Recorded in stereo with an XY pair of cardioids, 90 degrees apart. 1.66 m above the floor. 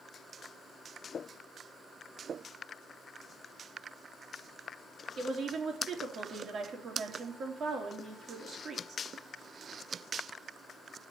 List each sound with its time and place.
5.2 s a woman speaking: 55° right, 4 m